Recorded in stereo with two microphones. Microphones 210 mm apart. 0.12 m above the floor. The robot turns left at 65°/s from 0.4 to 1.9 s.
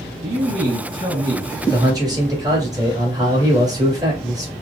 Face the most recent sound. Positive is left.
turn(degrees=-20)  # may be behind; listen again after turning